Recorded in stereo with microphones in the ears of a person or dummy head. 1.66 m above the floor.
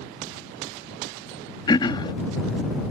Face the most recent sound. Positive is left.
turn(degrees=30)  # may be behind; listen again after turning